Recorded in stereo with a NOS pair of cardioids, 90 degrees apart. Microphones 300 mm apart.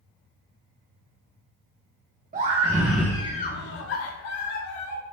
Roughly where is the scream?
Ahead right.